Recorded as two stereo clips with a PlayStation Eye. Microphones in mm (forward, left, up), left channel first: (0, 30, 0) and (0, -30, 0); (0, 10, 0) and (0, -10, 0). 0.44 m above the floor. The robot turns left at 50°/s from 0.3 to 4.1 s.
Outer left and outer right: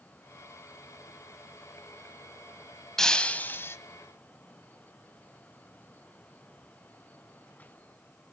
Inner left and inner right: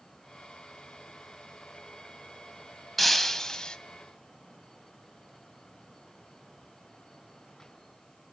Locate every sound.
3.0 s breaking glass: 175° left, 1.0 m; by 3.8 s 135° left, 1.0 m